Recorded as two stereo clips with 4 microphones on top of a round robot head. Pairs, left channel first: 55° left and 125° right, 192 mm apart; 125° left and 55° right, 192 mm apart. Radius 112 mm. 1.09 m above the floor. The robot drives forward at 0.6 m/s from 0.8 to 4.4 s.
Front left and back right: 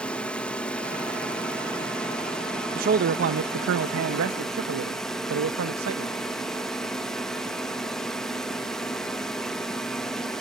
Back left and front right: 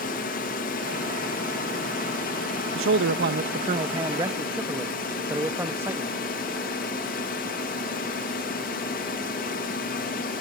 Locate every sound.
0.0 s a drone: 140° left; by 10.4 s 145° left
2.8 s a man speaking: 75° right; by 6.2 s 135° right